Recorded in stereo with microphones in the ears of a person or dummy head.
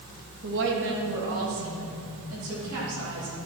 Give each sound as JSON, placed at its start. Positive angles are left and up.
{"t": 0.4, "sound": "a woman speaking", "side_deg": -60, "distance_m": 2.5}